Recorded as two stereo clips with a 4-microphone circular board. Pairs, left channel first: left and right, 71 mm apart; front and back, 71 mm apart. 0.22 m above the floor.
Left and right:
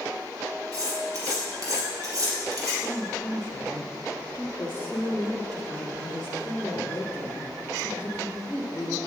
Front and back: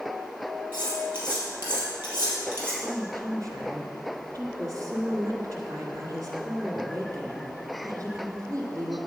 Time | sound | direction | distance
0.7 | cutlery clinking | 120° right | 4 m
2.8 | a woman speaking | 175° left | 1.6 m